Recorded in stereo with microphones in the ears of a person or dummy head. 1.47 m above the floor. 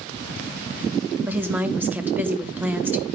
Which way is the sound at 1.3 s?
10° right (ahead or behind).